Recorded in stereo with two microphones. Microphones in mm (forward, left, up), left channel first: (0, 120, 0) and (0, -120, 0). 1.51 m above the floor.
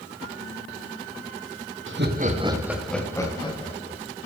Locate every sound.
1.9 s laughter: 55° right (ahead or behind), 1.1 m; by 4.0 s 25° left (ahead or behind), 2 m